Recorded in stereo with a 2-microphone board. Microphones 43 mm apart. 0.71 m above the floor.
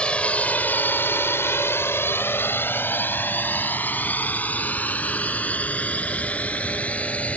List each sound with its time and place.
0.0 s a drone: 25° left (ahead or behind); by 7.4 s 30° left (ahead or behind)